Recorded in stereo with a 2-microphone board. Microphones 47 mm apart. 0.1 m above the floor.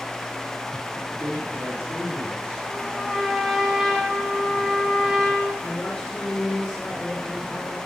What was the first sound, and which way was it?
A man speaking, 45° right (ahead or behind).